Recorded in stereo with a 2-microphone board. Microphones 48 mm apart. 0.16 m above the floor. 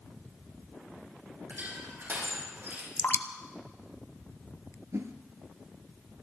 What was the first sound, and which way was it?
Crushing, 45° right (ahead or behind).